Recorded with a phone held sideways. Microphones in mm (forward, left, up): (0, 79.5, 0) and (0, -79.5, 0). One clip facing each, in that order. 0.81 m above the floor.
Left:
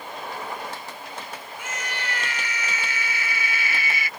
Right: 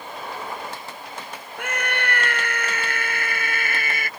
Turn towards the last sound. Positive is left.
turn(degrees=-50)  # may be behind; listen again after turning